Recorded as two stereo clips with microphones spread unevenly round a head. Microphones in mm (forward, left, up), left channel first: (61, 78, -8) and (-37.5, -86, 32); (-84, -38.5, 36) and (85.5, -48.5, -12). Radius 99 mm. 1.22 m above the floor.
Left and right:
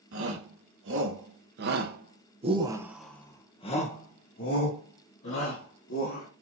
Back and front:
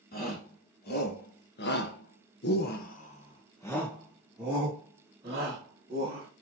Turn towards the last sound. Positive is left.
turn(degrees=60)